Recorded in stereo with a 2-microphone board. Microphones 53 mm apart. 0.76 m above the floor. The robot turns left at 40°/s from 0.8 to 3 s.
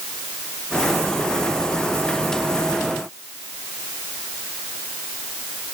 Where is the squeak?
I don't hear a squeak.